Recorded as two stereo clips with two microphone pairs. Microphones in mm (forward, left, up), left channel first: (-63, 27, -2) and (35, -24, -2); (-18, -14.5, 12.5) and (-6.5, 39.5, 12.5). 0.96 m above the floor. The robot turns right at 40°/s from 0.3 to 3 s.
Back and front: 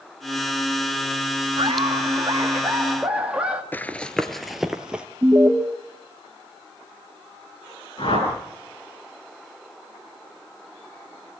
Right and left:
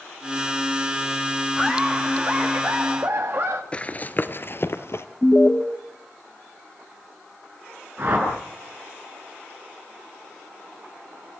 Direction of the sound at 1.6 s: 5° right.